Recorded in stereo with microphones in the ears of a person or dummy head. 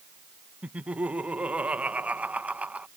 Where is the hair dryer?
No hair dryer in this recording.